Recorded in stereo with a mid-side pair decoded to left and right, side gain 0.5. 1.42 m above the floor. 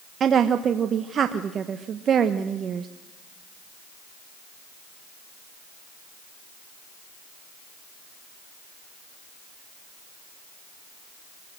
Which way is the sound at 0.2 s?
45° right.